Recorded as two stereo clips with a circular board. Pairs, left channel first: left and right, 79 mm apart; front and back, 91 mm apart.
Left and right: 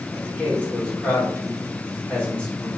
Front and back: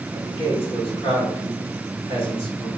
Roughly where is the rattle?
No rattle in this recording.